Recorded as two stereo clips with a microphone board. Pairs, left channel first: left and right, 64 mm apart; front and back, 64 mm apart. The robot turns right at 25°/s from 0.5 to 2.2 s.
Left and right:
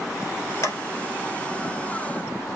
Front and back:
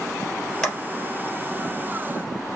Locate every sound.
0.6 s a clap: 80° left, 2 m; by 0.8 s 85° left, 2 m